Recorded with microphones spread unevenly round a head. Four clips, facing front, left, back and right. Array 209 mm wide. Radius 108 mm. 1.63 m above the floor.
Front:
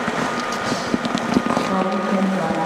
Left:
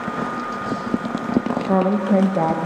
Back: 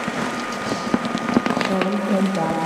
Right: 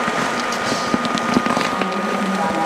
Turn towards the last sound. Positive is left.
turn(degrees=110)